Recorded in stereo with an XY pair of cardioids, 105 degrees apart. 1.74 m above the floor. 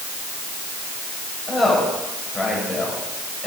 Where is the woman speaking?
25° left, 8 m.